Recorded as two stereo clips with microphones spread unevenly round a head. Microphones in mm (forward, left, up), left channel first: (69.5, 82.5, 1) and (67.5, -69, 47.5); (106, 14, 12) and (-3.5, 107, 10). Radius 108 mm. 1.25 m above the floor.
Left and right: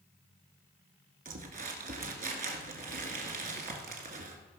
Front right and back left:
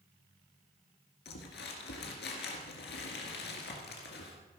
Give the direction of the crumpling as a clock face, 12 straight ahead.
2 o'clock.